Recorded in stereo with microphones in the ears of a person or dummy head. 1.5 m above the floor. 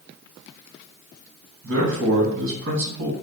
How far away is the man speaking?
About 1.6 m.